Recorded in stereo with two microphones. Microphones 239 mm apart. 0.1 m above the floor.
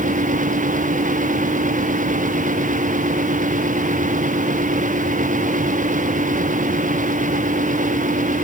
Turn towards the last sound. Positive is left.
No sound to turn to.